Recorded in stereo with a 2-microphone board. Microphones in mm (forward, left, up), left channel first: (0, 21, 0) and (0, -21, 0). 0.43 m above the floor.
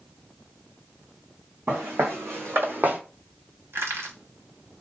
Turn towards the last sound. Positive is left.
turn(degrees=-70)  # may be behind; listen again after turning